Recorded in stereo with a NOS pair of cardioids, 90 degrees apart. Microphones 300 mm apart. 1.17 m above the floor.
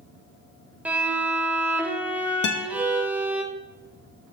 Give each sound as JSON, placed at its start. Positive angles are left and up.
{"t": 0.8, "sound": "a violin", "azimuth_deg": -5, "distance_m": 0.5}
{"t": 2.4, "sound": "a guitar", "azimuth_deg": 40, "distance_m": 0.5}